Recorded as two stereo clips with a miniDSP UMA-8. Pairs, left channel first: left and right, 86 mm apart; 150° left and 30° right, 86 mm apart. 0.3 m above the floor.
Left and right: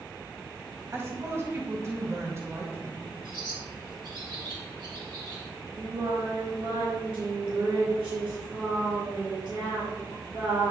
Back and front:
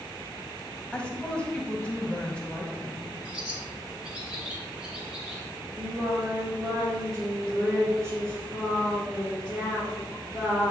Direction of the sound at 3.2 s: 105° right.